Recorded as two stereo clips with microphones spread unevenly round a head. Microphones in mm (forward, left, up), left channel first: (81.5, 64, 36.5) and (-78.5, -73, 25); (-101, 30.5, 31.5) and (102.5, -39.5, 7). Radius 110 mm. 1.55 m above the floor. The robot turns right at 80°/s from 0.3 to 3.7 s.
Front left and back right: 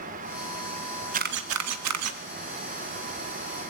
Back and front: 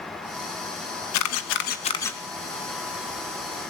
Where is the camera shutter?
165° left, 1.9 m; by 2.2 s 110° right, 1.9 m.